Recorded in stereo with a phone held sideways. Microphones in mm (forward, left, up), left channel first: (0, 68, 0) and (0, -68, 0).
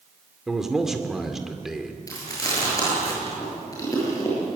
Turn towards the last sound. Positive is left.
turn(degrees=25)  # may be behind; listen again after turning